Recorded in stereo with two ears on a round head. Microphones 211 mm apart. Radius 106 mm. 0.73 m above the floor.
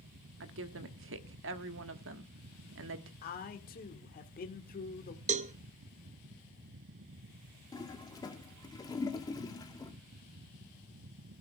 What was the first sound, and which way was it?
A woman speaking, 60° right (ahead or behind).